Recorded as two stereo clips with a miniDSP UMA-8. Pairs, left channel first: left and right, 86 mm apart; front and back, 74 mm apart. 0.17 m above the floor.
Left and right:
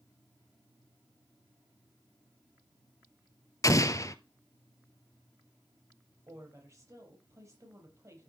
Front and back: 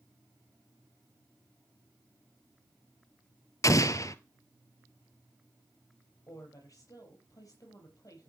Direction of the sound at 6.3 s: 40° right.